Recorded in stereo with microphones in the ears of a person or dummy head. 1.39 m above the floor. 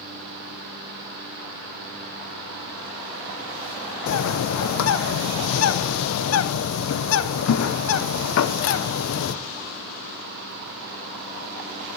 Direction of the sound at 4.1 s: 80° left.